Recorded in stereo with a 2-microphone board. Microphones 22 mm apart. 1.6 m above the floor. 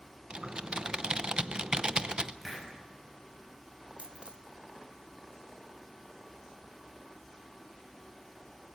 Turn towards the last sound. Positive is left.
turn(degrees=-60)  # may be behind; listen again after turning